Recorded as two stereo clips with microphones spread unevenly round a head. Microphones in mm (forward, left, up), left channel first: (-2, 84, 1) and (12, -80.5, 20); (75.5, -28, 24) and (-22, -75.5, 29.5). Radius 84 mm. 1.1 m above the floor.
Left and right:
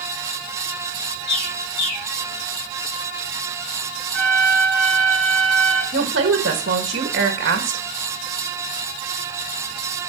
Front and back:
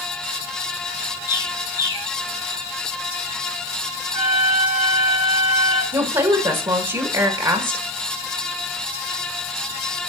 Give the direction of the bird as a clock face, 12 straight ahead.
9 o'clock.